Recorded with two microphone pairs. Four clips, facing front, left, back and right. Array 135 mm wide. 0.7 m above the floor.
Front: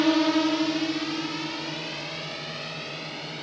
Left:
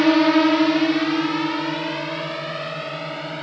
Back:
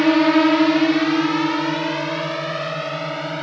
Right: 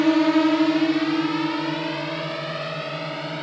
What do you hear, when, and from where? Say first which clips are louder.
0.0 s a drone: left 2 dB, back 7 dB; 140° left; by 3.4 s 175° left